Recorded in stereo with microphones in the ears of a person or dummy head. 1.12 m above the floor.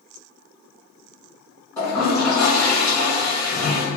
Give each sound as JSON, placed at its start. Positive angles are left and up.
{"t": 1.8, "sound": "a toilet flushing", "side_deg": 20, "distance_m": 1.4}